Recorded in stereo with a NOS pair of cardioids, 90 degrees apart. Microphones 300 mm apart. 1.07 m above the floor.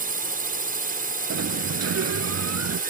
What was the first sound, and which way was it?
A drone, 30° right.